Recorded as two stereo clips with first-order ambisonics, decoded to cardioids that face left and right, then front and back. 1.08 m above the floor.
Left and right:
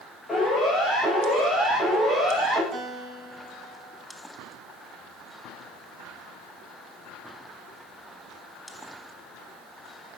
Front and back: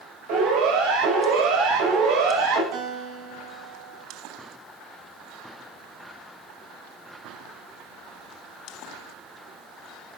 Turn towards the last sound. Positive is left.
turn(degrees=-175)